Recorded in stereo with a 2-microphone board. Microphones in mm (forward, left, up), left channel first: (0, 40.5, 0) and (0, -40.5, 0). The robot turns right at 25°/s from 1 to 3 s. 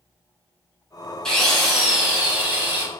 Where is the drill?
170° left, 1.1 m; by 2.9 s 150° right, 1.1 m.